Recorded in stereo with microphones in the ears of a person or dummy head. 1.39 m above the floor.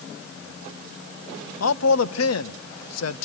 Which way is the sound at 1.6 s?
85° left.